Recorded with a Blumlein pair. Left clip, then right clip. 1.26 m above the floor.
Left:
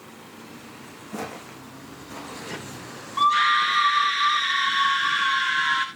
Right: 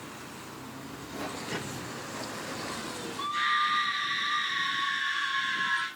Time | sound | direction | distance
1.1 | footsteps | 35° left | 5.5 m
3.2 | a scream | 50° left | 1.3 m